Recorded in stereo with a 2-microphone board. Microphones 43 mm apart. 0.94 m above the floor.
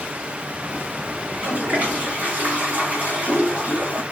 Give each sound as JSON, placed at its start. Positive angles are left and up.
{"t": 1.2, "sound": "a toilet flushing", "side_deg": -35, "distance_m": 3.0}